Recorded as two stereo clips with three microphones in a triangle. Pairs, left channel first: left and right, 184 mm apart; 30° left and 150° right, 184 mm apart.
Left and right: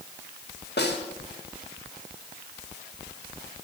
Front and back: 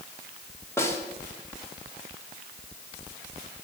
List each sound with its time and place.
0.8 s a snare drum: 105° left, 1.9 m